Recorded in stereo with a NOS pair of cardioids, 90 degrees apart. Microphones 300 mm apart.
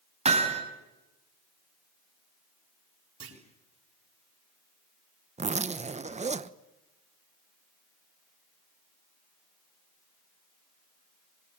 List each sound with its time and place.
0.2 s hammering: 20° right, 6 m
3.2 s a clunk: 45° right, 6.5 m
5.4 s a zipper: 25° right, 1.1 m